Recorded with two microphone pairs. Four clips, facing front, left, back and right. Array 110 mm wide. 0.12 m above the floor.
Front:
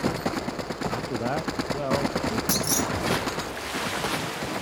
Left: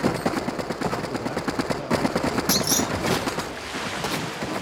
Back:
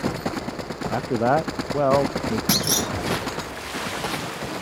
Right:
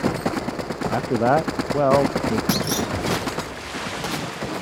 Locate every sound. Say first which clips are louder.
0.9 s a man speaking: right 9 dB, back 11 dB; 120° right
2.5 s a clunk: right 1 dB, back 2 dB; 175° right